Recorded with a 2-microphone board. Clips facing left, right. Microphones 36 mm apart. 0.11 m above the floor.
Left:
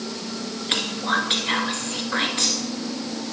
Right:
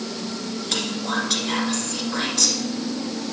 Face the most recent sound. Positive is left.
turn(degrees=35)  # may be behind; listen again after turning